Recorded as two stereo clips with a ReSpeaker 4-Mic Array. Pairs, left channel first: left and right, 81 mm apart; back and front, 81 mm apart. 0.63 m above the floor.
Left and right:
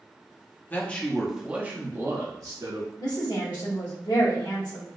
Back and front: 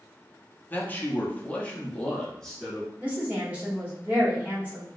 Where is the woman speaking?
70° left, 1.6 m.